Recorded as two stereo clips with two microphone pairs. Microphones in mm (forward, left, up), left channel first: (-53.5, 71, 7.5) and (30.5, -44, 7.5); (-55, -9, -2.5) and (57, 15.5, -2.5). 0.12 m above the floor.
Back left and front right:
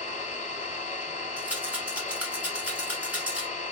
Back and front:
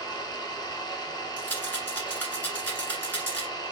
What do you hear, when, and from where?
0.0 s an engine running: 145° left, 0.9 m
1.4 s a rattle: 120° right, 1.4 m